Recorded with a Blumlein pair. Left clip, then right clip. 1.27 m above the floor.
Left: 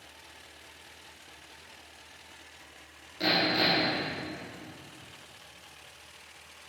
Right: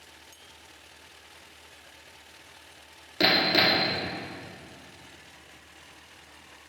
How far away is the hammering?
About 1.9 m.